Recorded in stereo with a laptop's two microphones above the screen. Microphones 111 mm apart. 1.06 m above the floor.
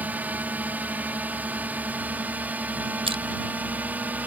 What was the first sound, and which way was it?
A drone, 15° right (ahead or behind).